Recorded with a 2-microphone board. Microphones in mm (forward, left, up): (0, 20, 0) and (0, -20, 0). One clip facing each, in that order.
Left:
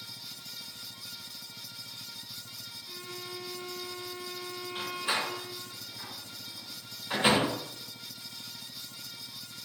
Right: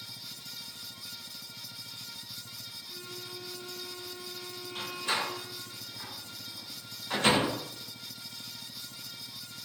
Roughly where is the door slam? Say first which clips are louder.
Even; centre.